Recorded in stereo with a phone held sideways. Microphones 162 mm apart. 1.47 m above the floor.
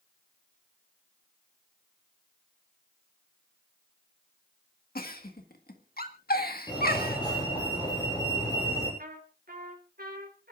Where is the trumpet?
65° right (ahead or behind), 4 m.